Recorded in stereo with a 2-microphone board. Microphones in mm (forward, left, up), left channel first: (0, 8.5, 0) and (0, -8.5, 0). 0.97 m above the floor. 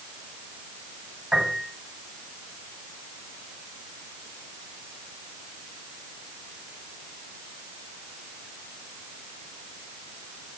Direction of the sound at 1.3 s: 85° right.